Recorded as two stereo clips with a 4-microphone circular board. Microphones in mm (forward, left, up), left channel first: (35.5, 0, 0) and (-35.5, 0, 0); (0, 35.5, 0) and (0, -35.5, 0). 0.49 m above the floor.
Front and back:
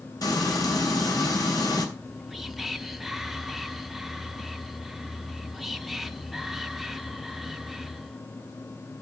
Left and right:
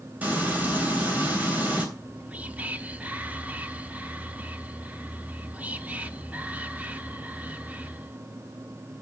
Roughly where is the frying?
Ahead right.